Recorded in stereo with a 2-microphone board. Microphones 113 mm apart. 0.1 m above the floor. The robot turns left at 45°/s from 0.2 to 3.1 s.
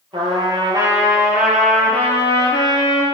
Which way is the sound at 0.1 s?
115° right.